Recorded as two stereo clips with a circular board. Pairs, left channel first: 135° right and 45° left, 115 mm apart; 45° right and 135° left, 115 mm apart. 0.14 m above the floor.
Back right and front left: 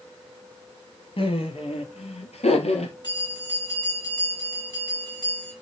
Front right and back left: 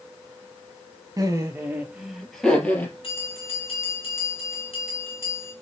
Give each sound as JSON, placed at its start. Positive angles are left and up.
{"t": 1.2, "sound": "laughter", "azimuth_deg": -165, "distance_m": 3.0}
{"t": 3.0, "sound": "a bell", "azimuth_deg": -85, "distance_m": 3.0}